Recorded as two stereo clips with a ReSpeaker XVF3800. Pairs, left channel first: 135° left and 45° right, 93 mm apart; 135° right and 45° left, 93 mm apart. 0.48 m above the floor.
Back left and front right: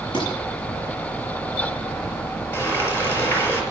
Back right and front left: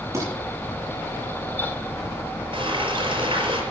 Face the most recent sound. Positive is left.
turn(degrees=70)